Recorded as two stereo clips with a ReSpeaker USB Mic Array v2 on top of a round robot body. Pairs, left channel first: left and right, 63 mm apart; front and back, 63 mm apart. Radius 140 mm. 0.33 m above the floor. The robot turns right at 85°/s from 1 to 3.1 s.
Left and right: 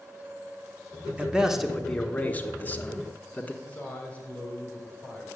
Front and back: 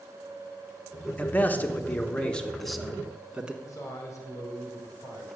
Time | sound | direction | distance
1.2 | a man speaking | 40° right | 1.4 m
3.6 | a man speaking | 25° left | 2.5 m